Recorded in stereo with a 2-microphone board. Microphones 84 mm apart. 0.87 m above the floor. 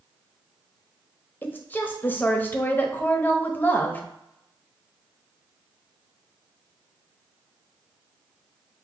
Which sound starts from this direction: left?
A woman speaking, at 1.4 s.